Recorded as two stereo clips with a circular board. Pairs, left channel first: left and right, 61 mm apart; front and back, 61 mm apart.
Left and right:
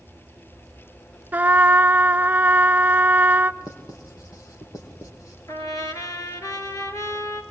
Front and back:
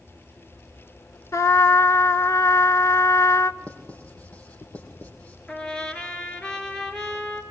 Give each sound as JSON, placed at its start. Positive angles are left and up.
{"t": 1.3, "sound": "a trumpet", "azimuth_deg": -30, "distance_m": 0.6}
{"t": 3.6, "sound": "writing", "azimuth_deg": 65, "distance_m": 5.0}
{"t": 5.5, "sound": "a trumpet", "azimuth_deg": 75, "distance_m": 3.0}